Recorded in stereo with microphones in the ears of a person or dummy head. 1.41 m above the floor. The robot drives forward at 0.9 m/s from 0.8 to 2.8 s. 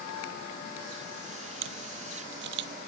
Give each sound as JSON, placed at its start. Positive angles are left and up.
{"t": 1.6, "sound": "a camera shutter", "side_deg": -75}